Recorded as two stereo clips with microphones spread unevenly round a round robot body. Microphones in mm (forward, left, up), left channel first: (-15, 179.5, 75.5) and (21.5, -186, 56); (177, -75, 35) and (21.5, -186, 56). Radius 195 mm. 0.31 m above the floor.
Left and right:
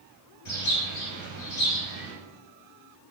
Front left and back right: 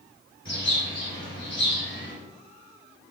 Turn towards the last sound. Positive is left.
turn(degrees=70)